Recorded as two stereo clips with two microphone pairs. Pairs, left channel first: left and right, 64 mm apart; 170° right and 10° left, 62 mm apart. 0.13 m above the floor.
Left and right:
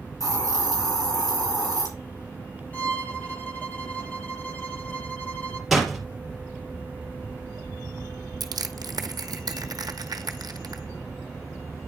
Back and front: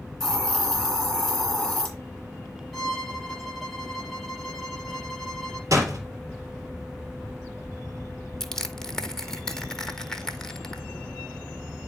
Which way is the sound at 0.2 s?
105° left.